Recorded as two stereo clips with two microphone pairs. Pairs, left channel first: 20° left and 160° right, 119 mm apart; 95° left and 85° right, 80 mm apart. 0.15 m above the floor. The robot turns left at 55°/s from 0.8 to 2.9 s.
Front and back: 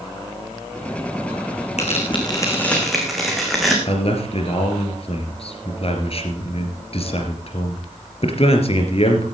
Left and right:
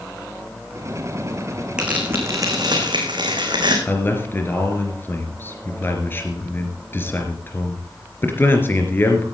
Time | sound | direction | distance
1.8 | tearing paper | 5° right | 3.5 m
3.9 | a man speaking | 35° left | 3 m